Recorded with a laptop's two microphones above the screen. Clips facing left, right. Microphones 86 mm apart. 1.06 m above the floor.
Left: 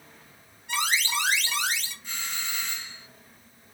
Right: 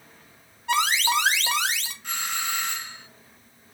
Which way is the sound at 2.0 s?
65° right (ahead or behind).